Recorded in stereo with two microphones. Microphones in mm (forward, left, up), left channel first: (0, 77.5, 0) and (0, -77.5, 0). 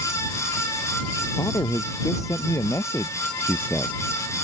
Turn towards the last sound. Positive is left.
turn(degrees=10)  # may be behind; listen again after turning